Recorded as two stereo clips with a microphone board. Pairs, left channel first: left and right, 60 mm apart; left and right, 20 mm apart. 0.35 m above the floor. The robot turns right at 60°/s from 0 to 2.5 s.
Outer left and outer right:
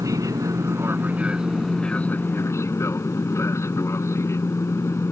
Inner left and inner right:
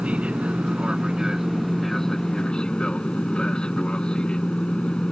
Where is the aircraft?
95° right; by 5.1 s 55° left.